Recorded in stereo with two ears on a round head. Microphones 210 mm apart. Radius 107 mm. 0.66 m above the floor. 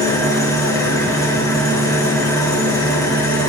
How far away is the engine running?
About 4 m.